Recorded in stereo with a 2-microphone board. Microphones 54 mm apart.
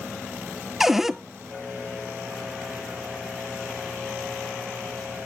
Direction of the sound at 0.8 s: 5° right (ahead or behind).